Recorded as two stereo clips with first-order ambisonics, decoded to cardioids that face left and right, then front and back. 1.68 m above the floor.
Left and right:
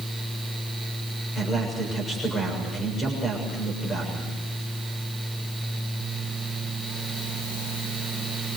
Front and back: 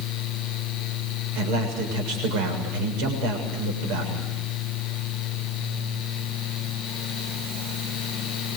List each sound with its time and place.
1.4 s a man speaking: 165° left, 7 m